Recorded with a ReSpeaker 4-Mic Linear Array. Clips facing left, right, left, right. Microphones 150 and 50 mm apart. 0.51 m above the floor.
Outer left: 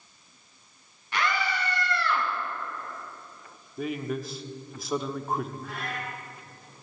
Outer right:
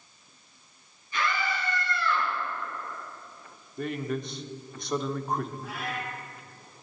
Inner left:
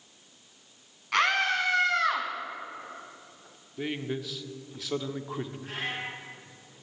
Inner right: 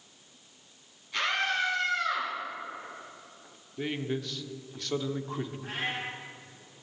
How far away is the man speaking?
About 0.9 m.